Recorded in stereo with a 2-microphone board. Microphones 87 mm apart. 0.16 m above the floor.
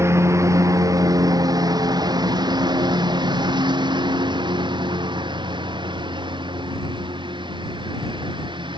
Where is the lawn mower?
35° right (ahead or behind); by 8.8 s 85° right.